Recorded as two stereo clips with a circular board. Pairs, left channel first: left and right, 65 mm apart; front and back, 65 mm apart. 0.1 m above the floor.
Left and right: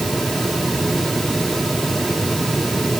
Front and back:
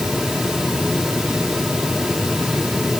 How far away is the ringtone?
No ringtone in this recording.